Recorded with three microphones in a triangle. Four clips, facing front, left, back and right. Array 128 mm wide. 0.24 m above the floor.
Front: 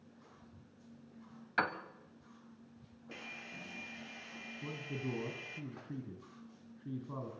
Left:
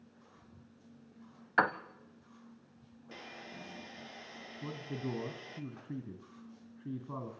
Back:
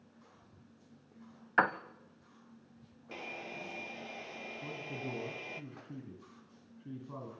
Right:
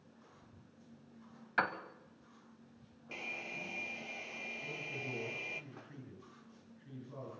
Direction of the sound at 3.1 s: 165° right.